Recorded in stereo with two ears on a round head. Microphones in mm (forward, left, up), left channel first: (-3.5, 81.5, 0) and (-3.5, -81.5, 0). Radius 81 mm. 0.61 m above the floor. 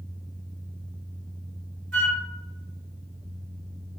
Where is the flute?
75° right (ahead or behind), 1.6 m.